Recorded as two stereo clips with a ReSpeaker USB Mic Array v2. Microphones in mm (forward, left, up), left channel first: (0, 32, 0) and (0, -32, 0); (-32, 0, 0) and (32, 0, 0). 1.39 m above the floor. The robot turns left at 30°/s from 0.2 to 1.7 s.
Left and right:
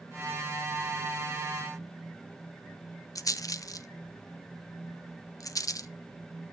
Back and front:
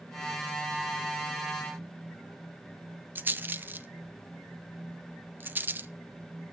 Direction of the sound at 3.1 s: 60° left.